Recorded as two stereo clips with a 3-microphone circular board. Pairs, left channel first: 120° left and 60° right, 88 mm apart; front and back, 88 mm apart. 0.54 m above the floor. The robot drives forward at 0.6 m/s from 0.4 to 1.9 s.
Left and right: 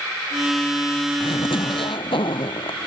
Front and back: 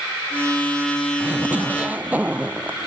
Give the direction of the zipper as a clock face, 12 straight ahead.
8 o'clock.